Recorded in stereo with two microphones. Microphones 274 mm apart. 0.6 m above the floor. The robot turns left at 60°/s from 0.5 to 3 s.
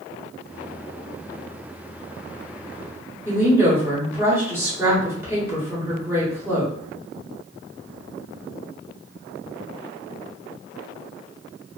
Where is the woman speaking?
10° right (ahead or behind), 1.2 m.